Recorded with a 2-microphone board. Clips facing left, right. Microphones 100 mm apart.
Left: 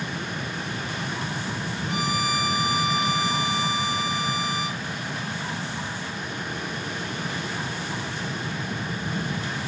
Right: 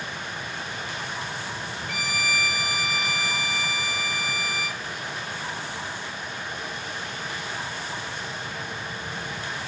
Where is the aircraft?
55° left (ahead or behind).